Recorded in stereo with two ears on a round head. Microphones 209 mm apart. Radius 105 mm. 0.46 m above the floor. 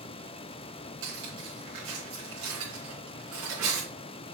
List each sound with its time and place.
1.0 s cutlery clinking: 85° right, 4 m